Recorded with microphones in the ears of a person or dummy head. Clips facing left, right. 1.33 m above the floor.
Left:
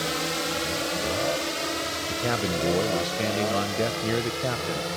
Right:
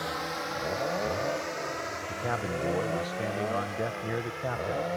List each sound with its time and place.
0.0 s a drone: 35° left (ahead or behind); by 5.0 s 50° left (ahead or behind)
2.1 s a man speaking: 35° left (ahead or behind)